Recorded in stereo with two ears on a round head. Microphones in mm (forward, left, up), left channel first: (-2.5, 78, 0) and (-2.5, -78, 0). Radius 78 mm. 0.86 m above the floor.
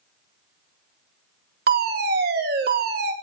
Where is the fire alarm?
60° right (ahead or behind), 4 m.